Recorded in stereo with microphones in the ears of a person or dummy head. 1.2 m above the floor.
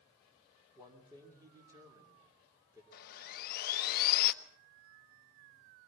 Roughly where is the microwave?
No microwave in this recording.